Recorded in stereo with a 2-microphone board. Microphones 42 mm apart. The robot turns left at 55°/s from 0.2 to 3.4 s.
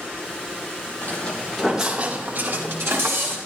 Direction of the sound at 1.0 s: 45° left (ahead or behind).